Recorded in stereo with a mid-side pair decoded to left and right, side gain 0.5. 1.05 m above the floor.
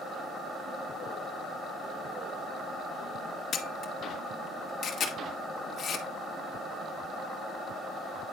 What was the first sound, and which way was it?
A camera shutter, 55° left.